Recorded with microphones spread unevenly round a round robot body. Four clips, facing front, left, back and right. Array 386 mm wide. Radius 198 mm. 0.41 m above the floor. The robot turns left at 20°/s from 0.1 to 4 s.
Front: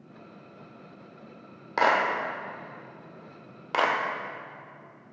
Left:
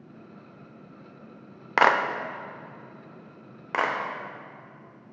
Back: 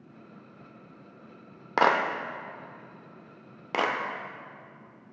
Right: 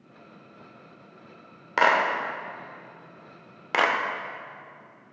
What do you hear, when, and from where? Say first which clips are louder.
1.8 s a clap: left 1 dB, even; 155° left, 0.7 m; by 2.0 s 150° left, 0.7 m
3.7 s a clap: right 3 dB, front 3 dB; 155° right, 0.8 m; by 4.0 s 160° right, 0.8 m